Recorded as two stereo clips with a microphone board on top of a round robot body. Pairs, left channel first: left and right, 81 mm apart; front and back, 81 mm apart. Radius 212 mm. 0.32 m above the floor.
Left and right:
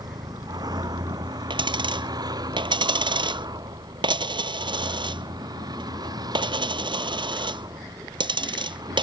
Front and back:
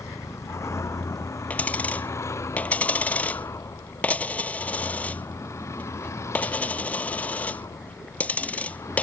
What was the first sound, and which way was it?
A vehicle, 55° right.